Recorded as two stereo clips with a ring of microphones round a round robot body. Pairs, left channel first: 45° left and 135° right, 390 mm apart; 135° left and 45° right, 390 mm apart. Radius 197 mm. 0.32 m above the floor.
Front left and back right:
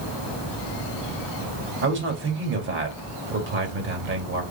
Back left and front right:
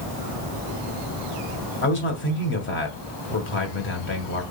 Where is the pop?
No pop in this recording.